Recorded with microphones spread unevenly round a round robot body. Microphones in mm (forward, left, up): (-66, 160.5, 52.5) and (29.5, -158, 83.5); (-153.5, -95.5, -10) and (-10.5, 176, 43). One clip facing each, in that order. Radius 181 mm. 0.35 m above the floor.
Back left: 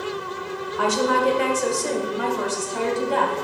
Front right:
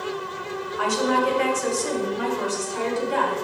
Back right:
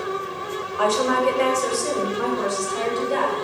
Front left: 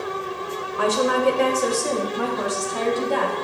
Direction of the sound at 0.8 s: 125° left.